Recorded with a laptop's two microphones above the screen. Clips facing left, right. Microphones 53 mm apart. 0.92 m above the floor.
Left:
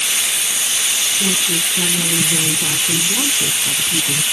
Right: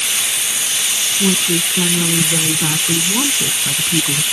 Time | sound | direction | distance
1.2 | a woman speaking | 40° right (ahead or behind) | ?